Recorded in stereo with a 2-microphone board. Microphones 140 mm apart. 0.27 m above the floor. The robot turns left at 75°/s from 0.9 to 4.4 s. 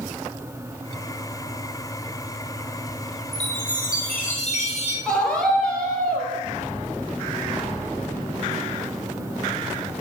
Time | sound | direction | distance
3.3 | a chime | 130° left | 5 m
5.0 | a scream | 5° left (ahead or behind) | 7 m